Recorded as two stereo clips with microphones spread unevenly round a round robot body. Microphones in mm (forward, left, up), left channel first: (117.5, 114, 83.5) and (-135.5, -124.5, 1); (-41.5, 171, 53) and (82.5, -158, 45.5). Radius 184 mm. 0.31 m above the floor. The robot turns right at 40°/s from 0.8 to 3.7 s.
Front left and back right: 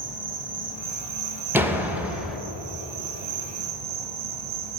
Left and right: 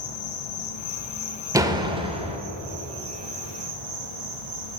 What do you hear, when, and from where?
0.0 s an insect: 160° left, 0.8 m; by 4.8 s 85° right, 0.8 m
1.5 s a door slam: 130° right, 0.6 m; by 2.4 s 95° right, 0.6 m